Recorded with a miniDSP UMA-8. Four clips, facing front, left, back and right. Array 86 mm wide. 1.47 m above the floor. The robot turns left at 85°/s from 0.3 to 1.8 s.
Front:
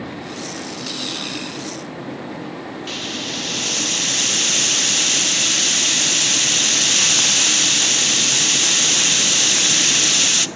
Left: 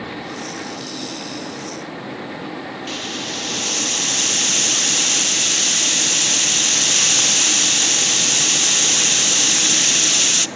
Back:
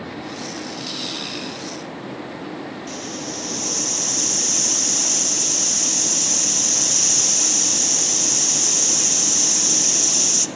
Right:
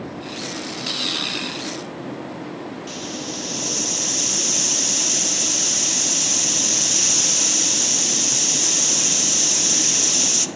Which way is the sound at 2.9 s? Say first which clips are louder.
Left 2 dB, front 1 dB; 30° left.